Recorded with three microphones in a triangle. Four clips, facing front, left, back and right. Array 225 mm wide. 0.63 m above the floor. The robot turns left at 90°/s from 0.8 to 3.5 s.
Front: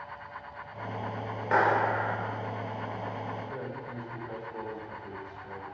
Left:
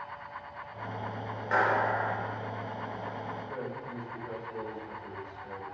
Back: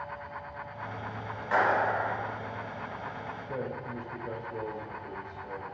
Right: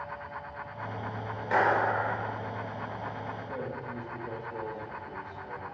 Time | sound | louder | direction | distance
1.5 | a clap | right 2 dB, front 1 dB | 10° right | 1.8 m
3.5 | a man speaking | right 1 dB, back 2 dB | 170° right | 3.5 m